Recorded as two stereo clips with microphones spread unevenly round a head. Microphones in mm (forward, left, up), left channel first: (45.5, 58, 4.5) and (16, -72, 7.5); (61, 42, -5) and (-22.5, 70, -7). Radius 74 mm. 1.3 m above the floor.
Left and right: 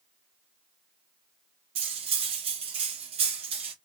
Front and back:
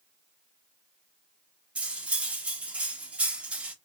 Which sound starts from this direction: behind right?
Cutlery clinking, at 1.8 s.